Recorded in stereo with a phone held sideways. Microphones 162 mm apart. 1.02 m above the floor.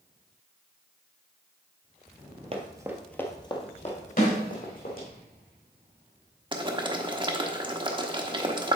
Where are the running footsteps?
35° right (ahead or behind), 1.3 m; by 5.1 s 60° left (ahead or behind), 3.5 m.